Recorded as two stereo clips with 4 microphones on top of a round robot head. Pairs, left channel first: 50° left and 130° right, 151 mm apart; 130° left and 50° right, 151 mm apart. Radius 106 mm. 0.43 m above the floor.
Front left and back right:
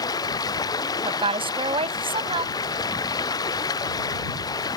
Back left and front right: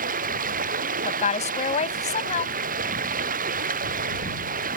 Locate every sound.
0.0 s running water: 20° right
1.1 s a woman speaking: 175° left